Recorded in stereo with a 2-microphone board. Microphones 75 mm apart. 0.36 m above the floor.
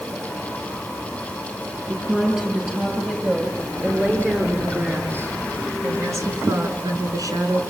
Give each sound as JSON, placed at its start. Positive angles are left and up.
{"t": 1.9, "sound": "a woman speaking", "side_deg": -10, "distance_m": 7.5}